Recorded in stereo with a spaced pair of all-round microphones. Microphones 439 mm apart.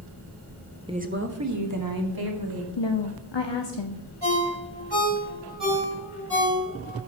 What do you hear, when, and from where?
0.9 s a woman speaking: 10° right (ahead or behind), 0.8 m; by 2.7 s 60° right (ahead or behind), 2 m
2.8 s a woman speaking: 75° left (ahead or behind), 0.8 m
4.2 s a ringtone: 65° right (ahead or behind), 4.5 m